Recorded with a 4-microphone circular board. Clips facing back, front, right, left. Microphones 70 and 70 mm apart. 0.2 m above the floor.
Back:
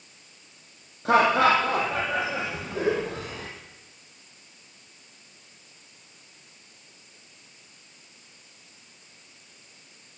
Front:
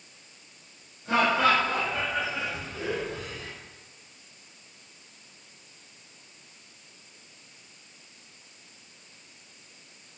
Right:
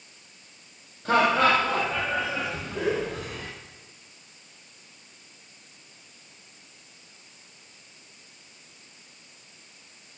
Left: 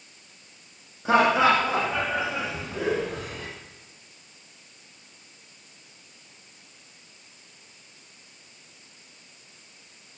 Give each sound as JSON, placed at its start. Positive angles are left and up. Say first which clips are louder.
{"t": 1.1, "sound": "laughter", "louder": "back 4 dB, left 1 dB", "azimuth_deg": 165, "distance_m": 7.0}